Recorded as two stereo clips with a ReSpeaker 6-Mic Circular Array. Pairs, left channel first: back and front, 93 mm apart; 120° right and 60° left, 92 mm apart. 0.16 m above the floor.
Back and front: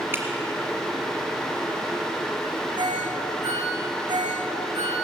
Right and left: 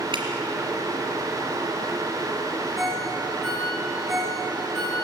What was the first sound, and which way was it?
Dripping, 65° left.